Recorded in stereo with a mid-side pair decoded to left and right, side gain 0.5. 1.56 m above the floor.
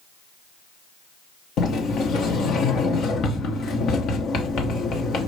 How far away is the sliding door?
About 1.2 m.